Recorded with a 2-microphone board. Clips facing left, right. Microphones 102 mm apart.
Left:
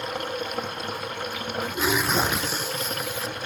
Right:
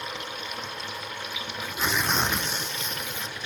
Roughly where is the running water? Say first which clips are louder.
Left 6 dB; left.